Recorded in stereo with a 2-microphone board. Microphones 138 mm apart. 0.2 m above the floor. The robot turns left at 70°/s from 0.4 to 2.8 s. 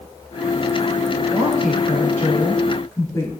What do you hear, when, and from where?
1.3 s a woman speaking: 125° left, 2.5 m; by 3.3 s 20° left, 2.5 m